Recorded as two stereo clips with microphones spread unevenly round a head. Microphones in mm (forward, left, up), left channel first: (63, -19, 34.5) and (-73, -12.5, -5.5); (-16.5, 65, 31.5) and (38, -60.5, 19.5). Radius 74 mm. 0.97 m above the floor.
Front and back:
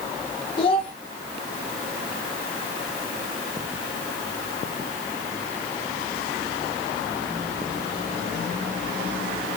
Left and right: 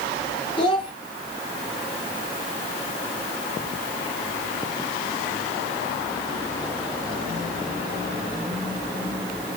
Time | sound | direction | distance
0.6 | a child speaking | 55° left | 2.5 m